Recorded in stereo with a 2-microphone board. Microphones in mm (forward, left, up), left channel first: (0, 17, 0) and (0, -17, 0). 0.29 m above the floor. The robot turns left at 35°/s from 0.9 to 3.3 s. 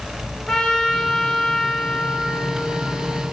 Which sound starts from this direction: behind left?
A trumpet, at 0.5 s.